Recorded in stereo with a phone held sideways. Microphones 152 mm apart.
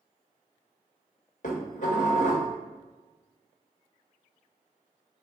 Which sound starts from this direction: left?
Dishes clattering, at 1.4 s.